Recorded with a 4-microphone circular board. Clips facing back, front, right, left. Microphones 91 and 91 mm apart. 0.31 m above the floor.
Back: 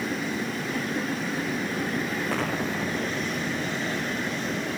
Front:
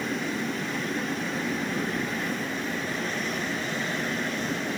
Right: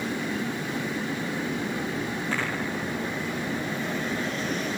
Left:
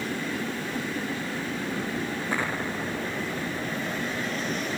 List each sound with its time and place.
2.3 s an explosion: 165° left